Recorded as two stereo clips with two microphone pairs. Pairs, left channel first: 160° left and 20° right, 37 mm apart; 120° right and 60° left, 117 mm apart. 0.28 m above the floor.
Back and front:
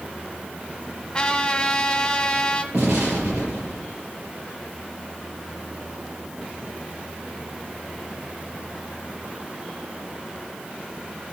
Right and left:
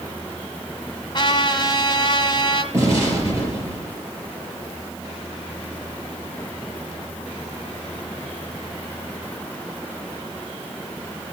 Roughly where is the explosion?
Ahead.